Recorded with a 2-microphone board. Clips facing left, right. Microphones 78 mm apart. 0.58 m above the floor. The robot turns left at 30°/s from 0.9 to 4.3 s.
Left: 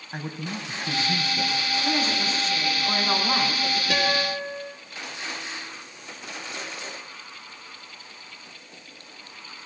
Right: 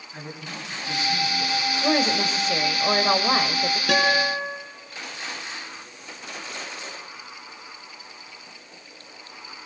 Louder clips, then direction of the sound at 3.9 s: Right 5 dB; 80° right.